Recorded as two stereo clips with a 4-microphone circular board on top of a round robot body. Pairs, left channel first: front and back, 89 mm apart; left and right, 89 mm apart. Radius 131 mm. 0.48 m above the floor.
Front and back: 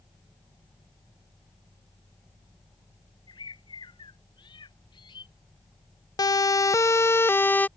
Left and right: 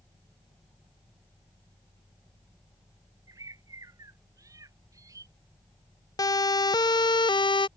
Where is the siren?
45° left; by 7.7 s 70° left.